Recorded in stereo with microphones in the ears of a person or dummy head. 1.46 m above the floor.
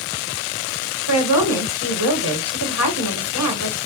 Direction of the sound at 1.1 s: 85° left.